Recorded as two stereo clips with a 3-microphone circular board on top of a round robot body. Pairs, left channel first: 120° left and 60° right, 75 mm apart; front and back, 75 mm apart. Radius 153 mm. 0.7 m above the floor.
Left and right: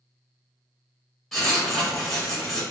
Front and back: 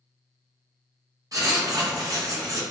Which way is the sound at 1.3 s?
155° right.